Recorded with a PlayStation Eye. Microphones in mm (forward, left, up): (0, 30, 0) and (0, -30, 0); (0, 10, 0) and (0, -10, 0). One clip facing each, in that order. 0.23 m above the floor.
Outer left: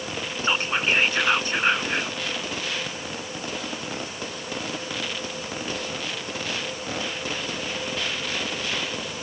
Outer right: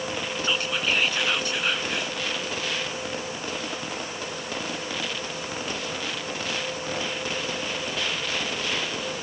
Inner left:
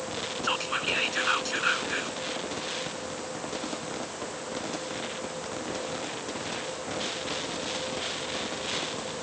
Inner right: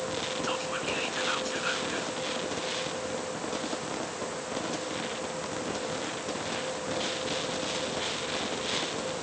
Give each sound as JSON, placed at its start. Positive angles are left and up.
{"t": 0.4, "sound": "whispering", "side_deg": 30}